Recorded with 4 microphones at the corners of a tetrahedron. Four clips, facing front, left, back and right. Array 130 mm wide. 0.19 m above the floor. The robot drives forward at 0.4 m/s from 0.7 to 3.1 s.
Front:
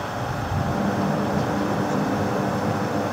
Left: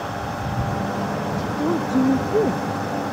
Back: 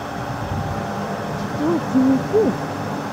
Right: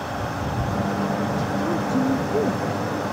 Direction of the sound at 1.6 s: 160° left.